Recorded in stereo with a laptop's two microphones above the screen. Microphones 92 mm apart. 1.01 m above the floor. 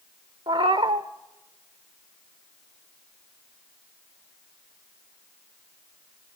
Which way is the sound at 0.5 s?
65° right (ahead or behind).